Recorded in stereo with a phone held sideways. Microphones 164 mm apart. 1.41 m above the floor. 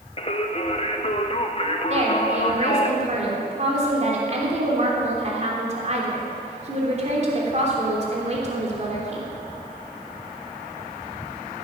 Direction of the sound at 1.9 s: 45° right (ahead or behind).